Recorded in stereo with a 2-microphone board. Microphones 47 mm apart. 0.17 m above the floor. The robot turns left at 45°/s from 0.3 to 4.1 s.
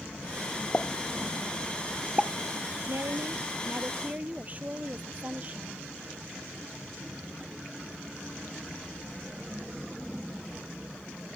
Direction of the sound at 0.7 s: 35° left (ahead or behind).